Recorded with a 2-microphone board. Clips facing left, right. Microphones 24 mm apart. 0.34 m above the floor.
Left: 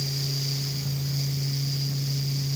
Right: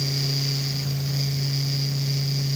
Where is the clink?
I don't hear a clink.